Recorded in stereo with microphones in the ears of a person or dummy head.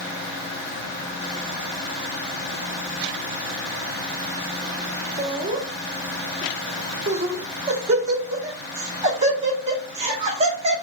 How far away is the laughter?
About 1.2 m.